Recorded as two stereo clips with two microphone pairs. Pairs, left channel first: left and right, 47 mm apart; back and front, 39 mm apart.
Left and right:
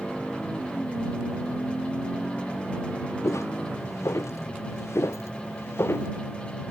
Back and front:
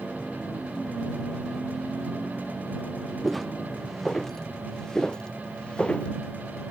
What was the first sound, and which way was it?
Footsteps, 95° left.